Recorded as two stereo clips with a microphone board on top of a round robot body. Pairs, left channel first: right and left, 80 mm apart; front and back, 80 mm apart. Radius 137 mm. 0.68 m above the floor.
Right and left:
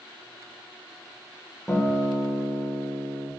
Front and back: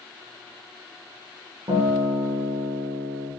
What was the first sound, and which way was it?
A guitar, 165° right.